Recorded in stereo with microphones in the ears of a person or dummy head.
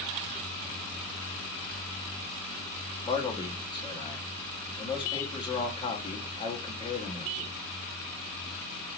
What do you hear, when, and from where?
3.0 s a man speaking: 25° left (ahead or behind), 1.0 m